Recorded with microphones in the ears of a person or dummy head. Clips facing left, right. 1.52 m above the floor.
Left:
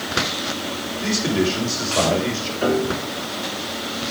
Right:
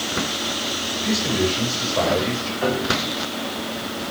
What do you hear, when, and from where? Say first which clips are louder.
1.0 s a man speaking: left 2 dB; 35° left (ahead or behind), 7.5 m
2.6 s a piano: left 3 dB; 30° left (ahead or behind), 7 m